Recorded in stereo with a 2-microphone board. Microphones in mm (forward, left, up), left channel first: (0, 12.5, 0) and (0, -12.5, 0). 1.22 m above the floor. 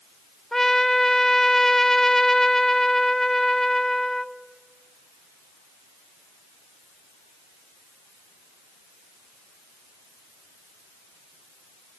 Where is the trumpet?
10° left (ahead or behind), 0.7 m.